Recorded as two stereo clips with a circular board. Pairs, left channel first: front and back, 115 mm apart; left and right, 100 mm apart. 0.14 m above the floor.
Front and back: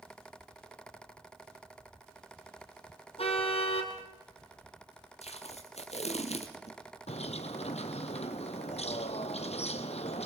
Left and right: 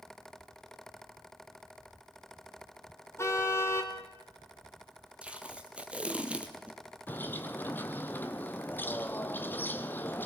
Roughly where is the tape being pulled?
Ahead.